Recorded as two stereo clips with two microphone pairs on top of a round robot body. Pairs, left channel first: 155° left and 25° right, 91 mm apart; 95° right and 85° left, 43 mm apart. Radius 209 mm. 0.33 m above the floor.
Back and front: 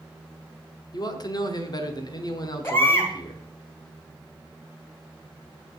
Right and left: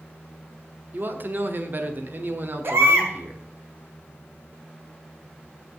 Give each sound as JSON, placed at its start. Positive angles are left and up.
{"t": 0.9, "sound": "a man speaking", "azimuth_deg": 115, "distance_m": 1.5}
{"t": 2.6, "sound": "a baby crying", "azimuth_deg": 85, "distance_m": 2.0}